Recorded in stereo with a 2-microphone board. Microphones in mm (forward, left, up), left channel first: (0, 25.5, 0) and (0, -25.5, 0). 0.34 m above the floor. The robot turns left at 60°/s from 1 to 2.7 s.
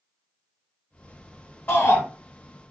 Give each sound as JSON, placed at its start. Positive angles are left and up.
{"t": 1.7, "sound": "a shout", "side_deg": 40, "distance_m": 1.6}